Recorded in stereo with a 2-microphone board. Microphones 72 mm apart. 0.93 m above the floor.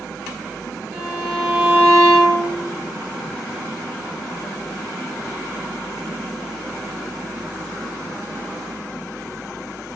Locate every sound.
0.9 s a violin: 40° right (ahead or behind), 1.0 m